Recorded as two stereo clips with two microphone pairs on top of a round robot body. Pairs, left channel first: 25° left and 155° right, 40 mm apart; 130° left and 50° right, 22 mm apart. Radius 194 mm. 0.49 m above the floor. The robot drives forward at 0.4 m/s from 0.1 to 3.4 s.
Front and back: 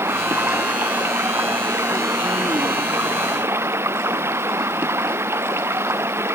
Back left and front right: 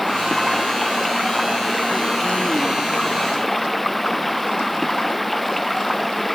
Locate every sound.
0.0 s running water: 145° right